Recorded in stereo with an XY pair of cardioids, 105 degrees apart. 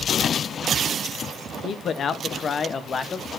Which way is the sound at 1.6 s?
60° left.